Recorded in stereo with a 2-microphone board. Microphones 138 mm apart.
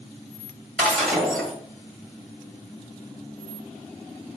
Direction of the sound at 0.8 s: Centre (ahead or behind).